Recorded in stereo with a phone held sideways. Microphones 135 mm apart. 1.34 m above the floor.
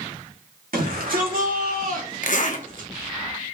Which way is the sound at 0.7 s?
85° right.